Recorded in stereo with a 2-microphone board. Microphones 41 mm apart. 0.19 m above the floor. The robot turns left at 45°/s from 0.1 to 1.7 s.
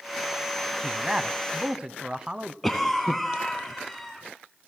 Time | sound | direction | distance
0.8 | a man speaking | 15° right (ahead or behind) | 1.0 m
2.6 | a cough | 5° left (ahead or behind) | 1.5 m